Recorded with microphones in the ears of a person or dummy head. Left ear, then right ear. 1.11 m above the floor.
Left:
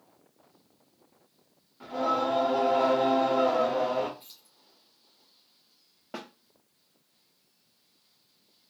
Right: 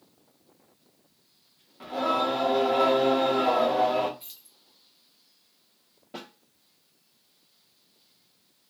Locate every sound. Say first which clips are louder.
1.8 s singing: right 2 dB; 15° right (ahead or behind), 0.8 m
4.2 s keys jangling: right 3 dB; 10° right (ahead or behind), 0.8 m
6.1 s a snare drum: left 1 dB; 50° left (ahead or behind), 0.8 m